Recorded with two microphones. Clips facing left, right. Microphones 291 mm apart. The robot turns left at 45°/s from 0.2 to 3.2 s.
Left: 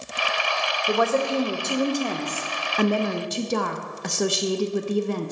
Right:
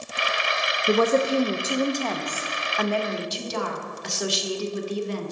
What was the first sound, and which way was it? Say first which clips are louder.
A woman speaking: right 3 dB; 140° right.